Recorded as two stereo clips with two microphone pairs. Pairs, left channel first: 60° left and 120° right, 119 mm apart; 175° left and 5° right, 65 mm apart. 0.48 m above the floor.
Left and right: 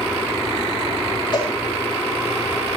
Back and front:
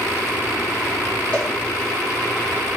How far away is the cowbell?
About 9 m.